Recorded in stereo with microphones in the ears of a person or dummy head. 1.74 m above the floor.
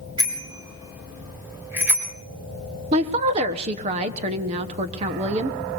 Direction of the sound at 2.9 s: 30° right (ahead or behind).